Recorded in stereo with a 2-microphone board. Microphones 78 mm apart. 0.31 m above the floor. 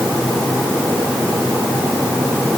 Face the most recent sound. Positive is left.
No sound to turn to.